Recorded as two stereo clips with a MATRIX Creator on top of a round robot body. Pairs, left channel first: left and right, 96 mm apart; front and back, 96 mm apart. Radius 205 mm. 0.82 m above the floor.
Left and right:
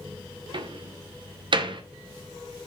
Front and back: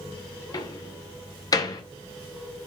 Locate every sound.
0.5 s a door slam: 50° right, 1.0 m